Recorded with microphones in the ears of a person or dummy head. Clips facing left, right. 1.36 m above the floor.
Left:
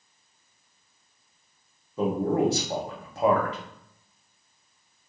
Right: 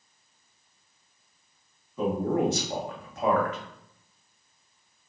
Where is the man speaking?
30° left (ahead or behind), 0.8 m.